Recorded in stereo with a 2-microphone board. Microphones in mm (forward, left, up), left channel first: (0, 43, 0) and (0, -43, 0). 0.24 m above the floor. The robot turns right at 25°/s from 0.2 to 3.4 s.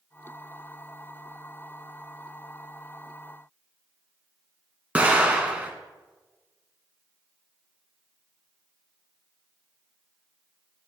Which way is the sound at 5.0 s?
15° right (ahead or behind).